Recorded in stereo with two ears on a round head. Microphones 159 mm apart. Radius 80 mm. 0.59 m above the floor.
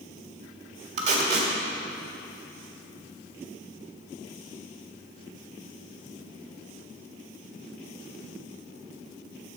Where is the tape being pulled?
35° right (ahead or behind), 1.6 m.